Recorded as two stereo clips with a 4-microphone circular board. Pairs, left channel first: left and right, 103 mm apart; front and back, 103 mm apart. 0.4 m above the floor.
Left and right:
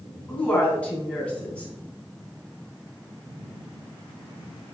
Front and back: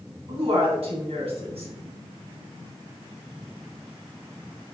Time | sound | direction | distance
0.3 | a woman speaking | 170° left | 3 m